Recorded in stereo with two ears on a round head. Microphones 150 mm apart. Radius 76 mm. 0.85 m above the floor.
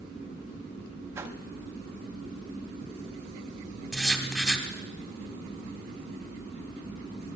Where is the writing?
5° left (ahead or behind), 1.9 m.